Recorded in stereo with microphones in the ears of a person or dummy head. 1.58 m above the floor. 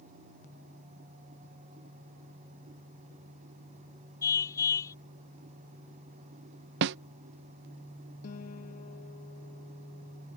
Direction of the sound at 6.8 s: 60° right (ahead or behind).